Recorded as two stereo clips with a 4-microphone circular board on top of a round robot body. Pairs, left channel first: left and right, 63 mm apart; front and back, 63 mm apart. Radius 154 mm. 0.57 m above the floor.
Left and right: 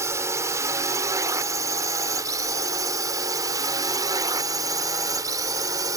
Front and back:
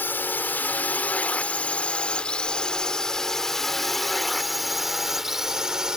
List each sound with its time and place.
0.0 s a drone: 55° right; by 6.0 s 100° right